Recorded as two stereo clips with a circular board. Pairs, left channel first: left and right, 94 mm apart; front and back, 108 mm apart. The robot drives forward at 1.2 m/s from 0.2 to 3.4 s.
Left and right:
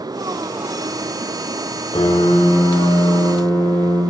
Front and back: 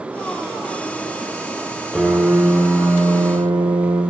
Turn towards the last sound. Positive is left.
turn(degrees=135)